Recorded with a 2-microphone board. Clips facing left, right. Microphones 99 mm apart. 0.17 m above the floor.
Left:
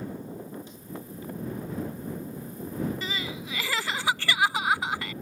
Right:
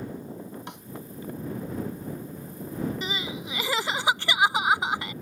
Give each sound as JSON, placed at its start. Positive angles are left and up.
{"t": 0.7, "sound": "a snare drum", "side_deg": -75}
{"t": 3.0, "sound": "crying", "side_deg": -20}